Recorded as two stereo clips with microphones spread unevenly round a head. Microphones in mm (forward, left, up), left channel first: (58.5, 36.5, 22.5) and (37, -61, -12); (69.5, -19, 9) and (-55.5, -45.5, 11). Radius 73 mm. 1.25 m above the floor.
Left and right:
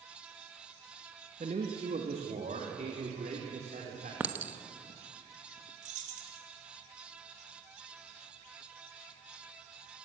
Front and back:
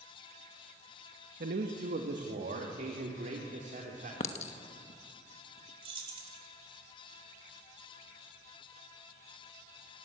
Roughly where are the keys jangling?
Behind right.